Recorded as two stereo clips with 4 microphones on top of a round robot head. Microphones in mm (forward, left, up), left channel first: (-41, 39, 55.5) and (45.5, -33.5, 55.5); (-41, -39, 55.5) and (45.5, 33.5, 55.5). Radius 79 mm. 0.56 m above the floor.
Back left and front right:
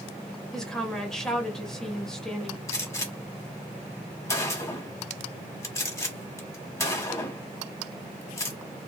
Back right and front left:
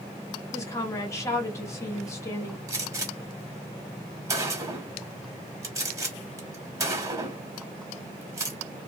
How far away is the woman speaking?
About 1.0 m.